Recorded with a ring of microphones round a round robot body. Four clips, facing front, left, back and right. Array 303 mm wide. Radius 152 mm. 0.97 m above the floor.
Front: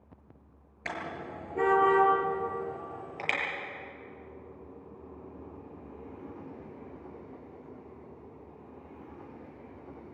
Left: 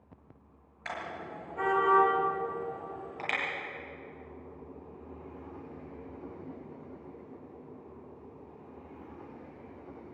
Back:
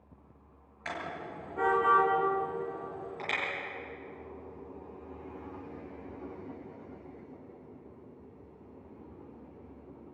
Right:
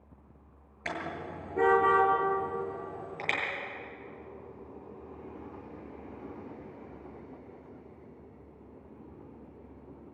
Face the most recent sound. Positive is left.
turn(degrees=-35)